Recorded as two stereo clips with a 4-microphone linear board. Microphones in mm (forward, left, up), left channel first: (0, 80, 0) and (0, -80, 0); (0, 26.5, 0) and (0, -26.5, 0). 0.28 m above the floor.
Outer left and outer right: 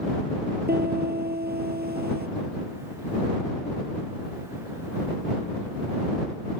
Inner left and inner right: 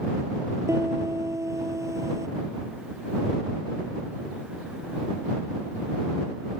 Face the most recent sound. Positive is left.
turn(degrees=-85)